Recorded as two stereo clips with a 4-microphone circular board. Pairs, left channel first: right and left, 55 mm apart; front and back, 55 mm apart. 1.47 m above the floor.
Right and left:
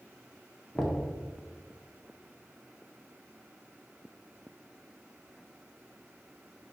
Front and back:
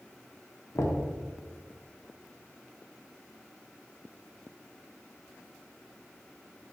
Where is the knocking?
5° right, 0.7 m.